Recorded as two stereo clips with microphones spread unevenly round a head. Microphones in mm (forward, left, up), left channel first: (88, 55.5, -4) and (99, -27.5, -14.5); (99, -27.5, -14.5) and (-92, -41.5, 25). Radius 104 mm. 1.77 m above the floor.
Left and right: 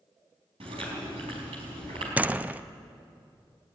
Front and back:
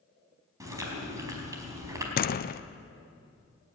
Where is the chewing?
105° right, 4.5 m.